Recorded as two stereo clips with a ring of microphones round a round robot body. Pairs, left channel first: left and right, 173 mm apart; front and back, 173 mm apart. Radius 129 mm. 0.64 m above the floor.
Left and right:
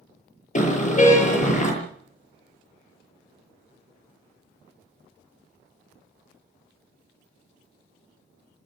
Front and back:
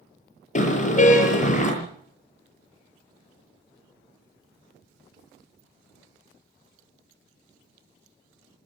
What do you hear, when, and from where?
0.6 s a car horn: 45° left, 8 m